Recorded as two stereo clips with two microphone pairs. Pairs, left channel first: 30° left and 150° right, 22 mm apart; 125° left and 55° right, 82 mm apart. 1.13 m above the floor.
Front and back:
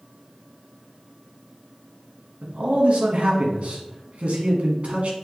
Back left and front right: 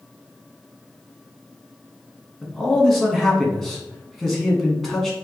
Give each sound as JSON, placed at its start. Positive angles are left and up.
{"t": 2.4, "sound": "a man speaking", "azimuth_deg": -145, "distance_m": 1.3}